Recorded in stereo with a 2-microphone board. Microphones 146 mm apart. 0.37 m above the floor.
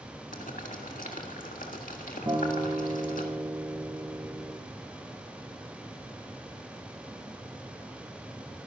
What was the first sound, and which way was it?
Boiling, 75° left (ahead or behind).